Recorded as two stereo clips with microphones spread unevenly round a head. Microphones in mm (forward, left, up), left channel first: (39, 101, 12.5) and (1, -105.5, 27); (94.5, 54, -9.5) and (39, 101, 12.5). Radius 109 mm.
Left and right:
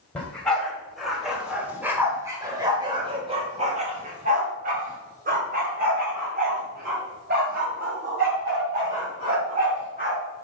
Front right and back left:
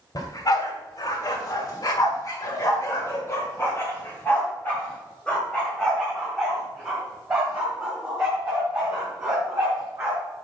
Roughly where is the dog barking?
Ahead.